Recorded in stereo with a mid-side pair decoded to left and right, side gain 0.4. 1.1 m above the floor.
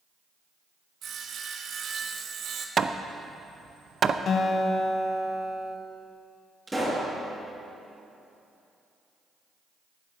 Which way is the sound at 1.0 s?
70° right.